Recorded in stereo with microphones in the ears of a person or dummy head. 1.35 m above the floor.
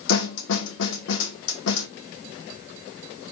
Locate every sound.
0.1 s a snare drum: 75° left (ahead or behind), 1.1 m